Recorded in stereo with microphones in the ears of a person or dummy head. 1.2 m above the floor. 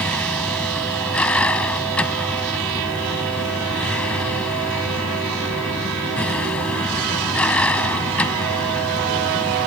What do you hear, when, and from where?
0.0 s a vehicle: 5° left (ahead or behind)